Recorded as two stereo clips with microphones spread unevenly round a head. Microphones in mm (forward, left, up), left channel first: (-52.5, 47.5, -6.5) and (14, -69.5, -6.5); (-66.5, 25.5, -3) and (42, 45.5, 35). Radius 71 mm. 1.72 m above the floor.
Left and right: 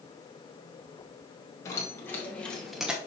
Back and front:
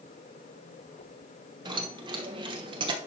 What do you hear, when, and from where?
1.6 s keys jangling: 50° left, 1.7 m; by 3.0 s 20° left, 0.9 m